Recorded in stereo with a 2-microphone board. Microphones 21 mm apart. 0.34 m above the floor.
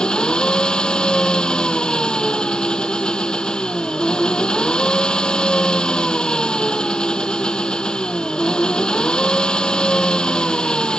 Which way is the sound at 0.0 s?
50° left (ahead or behind).